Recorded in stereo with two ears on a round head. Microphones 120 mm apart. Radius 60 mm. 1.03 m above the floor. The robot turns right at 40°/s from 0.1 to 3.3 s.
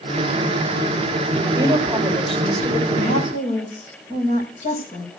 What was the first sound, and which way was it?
A woman speaking, 30° right.